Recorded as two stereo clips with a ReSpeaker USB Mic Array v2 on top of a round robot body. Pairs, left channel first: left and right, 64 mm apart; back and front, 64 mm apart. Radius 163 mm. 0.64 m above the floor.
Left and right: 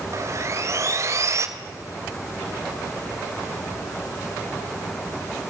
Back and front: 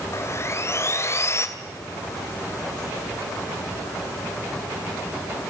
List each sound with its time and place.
0.1 s sawing: 135° right, 2.5 m